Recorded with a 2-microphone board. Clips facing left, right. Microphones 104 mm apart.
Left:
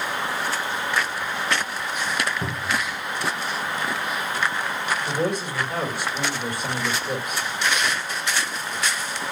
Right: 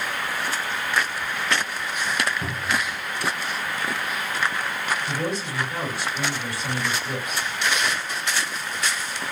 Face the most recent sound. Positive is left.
turn(degrees=55)  # may be behind; listen again after turning